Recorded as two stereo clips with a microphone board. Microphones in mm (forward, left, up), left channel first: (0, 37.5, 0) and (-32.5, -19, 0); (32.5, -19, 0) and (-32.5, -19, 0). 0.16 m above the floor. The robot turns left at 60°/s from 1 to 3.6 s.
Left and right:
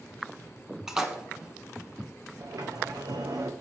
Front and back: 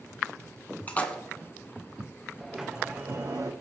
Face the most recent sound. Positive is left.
turn(degrees=-160)